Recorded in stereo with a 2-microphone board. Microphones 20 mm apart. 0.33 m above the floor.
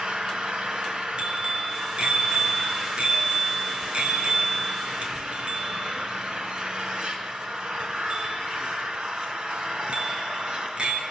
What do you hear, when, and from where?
0.0 s an engine running: 55° right (ahead or behind), 3 m
1.2 s a bicycle bell: 55° right (ahead or behind), 3.5 m